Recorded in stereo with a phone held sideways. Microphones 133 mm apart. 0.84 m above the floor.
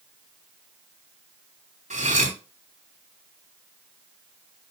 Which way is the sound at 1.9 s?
80° right.